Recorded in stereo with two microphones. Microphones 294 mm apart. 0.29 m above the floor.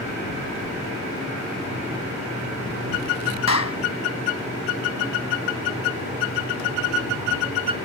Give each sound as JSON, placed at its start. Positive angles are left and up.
{"t": 3.5, "sound": "a clap", "side_deg": 60}